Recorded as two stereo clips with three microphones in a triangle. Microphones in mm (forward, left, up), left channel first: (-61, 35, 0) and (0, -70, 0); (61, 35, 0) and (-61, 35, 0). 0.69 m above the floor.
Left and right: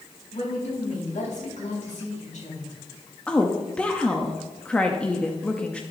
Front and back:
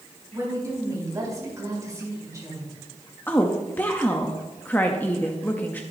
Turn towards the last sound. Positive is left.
turn(degrees=55)